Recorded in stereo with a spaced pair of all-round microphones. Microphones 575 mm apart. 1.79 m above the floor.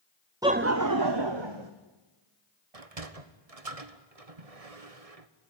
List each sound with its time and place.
0.4 s laughter: 5° right (ahead or behind), 0.5 m; by 1.7 s 55° right (ahead or behind), 1.4 m
2.7 s a sliding door: 80° right, 1.4 m